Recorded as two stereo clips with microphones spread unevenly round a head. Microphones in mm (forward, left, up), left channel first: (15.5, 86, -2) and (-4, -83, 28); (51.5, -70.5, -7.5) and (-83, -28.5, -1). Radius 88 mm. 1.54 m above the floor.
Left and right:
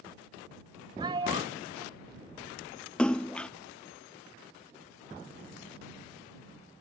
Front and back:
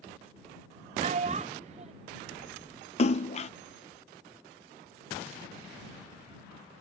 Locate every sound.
1.0 s a child speaking: 160° right
3.0 s a splash: 10° right